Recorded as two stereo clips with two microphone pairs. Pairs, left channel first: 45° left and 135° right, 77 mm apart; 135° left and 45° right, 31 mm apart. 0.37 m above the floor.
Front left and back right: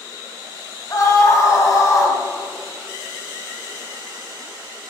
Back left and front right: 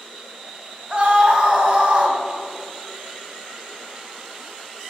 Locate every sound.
0.9 s a scream: 5° left, 2.5 m